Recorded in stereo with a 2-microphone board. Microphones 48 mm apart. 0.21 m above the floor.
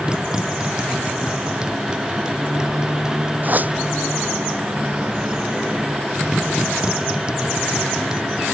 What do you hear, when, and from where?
0.0 s a motorcycle: 15° right (ahead or behind)
3.4 s a whoosh: 40° right (ahead or behind)